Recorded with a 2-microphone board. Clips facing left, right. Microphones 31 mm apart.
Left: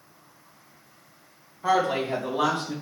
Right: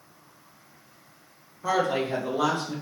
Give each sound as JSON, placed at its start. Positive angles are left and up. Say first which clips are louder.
{"t": 1.6, "sound": "a woman speaking", "louder": "left 2 dB", "side_deg": 30, "distance_m": 1.4}